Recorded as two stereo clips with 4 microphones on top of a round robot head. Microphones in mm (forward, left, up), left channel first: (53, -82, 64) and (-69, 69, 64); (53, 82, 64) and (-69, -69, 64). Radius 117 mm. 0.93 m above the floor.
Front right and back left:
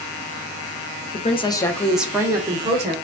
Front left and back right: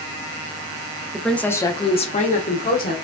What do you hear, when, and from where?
1.1 s a woman speaking: 40° right, 0.7 m; by 3.0 s 80° left, 1.0 m